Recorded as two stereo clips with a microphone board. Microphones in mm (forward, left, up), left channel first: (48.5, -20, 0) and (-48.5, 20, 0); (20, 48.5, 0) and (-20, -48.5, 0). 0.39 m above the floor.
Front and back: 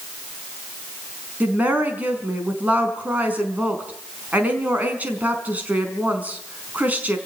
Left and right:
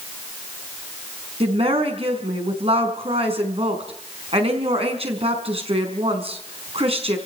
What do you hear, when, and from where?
1.4 s a woman speaking: 130° right, 5 m